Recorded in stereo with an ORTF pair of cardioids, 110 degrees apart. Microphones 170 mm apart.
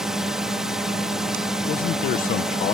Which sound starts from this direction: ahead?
A drone, at 0.0 s.